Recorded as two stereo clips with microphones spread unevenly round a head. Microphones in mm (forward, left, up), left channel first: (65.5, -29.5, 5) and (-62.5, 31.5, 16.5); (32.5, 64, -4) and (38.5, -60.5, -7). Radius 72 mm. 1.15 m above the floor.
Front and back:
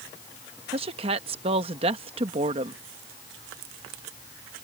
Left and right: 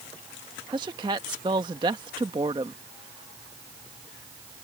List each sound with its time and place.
0.7 s a woman speaking: 150° right